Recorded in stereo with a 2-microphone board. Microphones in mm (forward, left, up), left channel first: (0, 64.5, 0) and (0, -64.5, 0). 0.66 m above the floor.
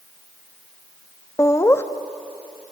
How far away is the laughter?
About 0.5 m.